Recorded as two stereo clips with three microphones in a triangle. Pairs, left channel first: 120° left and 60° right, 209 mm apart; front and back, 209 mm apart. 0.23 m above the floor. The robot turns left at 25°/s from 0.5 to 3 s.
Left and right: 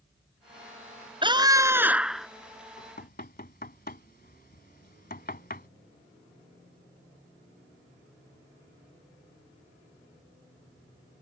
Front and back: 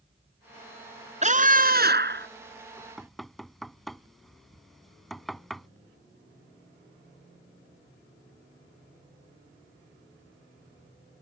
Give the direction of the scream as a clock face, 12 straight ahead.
4 o'clock.